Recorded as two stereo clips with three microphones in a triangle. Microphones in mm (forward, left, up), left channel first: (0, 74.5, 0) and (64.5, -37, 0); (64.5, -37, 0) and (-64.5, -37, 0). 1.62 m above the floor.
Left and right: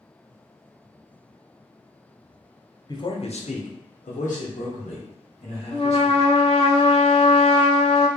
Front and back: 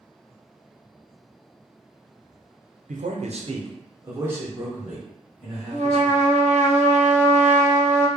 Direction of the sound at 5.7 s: 160° left.